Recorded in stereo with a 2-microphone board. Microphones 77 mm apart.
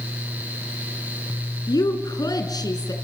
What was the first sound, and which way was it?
A woman speaking, 60° left (ahead or behind).